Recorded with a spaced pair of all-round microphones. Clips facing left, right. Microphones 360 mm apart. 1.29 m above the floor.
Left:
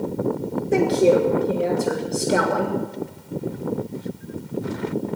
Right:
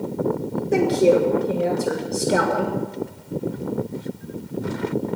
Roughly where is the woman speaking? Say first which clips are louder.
Even; centre.